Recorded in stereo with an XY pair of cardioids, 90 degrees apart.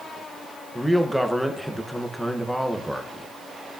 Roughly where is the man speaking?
Ahead.